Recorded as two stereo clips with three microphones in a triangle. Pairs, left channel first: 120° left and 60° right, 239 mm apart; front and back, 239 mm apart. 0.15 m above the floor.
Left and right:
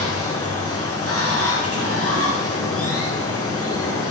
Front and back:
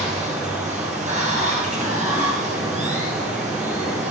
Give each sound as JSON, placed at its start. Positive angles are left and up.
{"t": 0.0, "sound": "running water", "azimuth_deg": 120, "distance_m": 3.0}